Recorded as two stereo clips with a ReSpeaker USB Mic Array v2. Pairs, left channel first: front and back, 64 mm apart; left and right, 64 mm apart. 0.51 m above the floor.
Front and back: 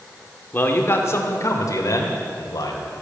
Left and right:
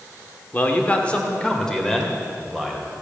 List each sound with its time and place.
0.5 s a man speaking: 45° left, 1.6 m; by 2.9 s 5° left, 3 m